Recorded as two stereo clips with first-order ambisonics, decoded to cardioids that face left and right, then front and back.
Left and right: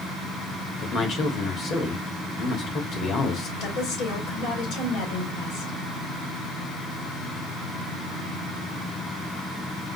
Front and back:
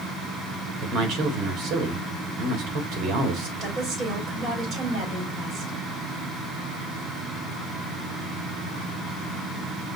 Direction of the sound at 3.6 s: 120° left.